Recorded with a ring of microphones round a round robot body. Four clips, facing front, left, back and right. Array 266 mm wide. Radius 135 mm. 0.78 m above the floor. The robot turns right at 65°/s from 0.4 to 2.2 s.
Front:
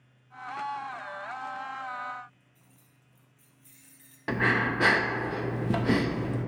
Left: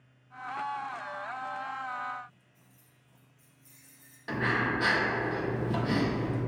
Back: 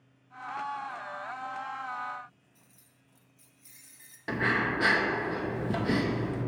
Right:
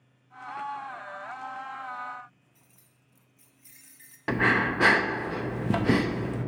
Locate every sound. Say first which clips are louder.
2.5 s keys jangling: left 1 dB, front 2 dB; 100° right, 0.7 m
4.3 s breathing: right 4 dB, front 2 dB; 65° right, 0.6 m